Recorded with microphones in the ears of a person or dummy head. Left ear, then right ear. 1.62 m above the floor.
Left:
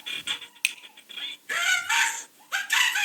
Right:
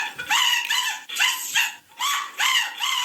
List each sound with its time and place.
0.6 s a finger snap: 40° left (ahead or behind), 2 m